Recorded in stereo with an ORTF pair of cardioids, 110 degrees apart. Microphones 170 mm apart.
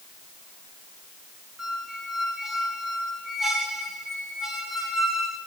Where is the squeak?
Straight ahead, 1.9 m.